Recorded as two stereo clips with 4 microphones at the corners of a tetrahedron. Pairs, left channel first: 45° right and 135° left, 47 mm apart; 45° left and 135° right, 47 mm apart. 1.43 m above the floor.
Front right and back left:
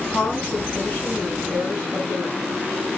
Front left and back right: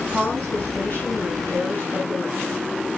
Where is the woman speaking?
5° left, 8.5 m.